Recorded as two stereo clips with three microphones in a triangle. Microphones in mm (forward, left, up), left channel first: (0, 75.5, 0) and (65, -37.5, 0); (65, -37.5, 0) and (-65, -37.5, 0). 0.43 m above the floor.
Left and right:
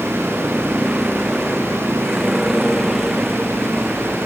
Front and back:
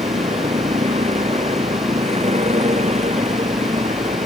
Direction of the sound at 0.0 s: 145° right.